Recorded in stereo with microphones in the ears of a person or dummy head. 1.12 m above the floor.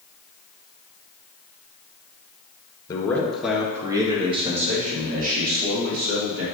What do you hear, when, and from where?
2.9 s a man speaking: 15° left (ahead or behind), 1.4 m; by 6.5 s 60° right (ahead or behind), 3 m